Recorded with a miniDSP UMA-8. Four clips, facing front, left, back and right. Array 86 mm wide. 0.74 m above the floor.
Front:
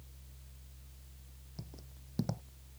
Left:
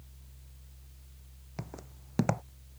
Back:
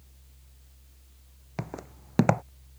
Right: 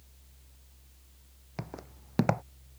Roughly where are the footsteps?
Behind.